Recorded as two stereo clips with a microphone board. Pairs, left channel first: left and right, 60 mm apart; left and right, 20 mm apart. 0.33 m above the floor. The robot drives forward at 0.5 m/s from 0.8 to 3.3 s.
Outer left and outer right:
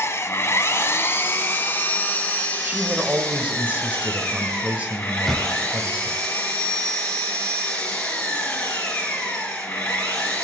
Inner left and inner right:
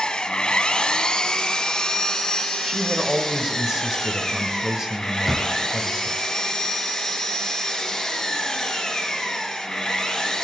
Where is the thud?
Centre (ahead or behind), 0.7 m.